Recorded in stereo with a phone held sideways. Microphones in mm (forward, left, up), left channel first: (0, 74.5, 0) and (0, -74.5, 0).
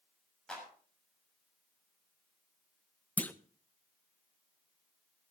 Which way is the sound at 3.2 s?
10° left (ahead or behind).